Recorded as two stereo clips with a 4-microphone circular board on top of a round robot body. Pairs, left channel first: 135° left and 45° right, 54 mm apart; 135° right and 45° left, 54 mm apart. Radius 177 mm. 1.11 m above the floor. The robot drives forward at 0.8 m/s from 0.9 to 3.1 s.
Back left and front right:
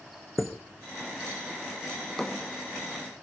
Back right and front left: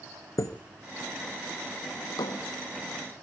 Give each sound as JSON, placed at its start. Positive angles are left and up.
{"t": 0.4, "sound": "a chime", "azimuth_deg": -135, "distance_m": 2.0}
{"t": 2.0, "sound": "a drawer", "azimuth_deg": -115, "distance_m": 0.5}